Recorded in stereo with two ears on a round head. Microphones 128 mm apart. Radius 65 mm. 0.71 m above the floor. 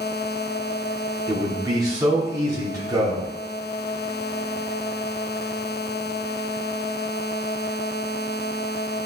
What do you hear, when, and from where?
1.3 s a man speaking: 25° right (ahead or behind), 2 m